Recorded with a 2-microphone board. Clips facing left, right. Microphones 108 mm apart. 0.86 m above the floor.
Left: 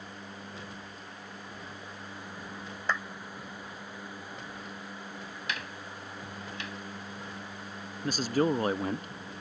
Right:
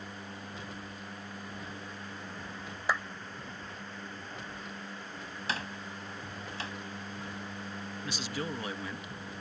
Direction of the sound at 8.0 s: 45° left (ahead or behind).